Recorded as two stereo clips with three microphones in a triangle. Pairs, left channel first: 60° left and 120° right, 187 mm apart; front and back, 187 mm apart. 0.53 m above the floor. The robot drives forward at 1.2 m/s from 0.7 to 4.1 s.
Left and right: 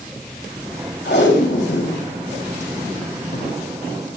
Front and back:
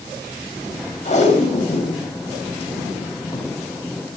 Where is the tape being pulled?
50° left, 8.5 m; by 3.5 s 70° left, 6.5 m.